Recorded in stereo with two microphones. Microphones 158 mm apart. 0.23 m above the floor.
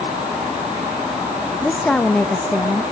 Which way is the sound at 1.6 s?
5° left (ahead or behind).